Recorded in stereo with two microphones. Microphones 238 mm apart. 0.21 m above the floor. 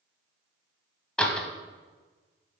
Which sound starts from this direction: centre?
A door slam, at 1.2 s.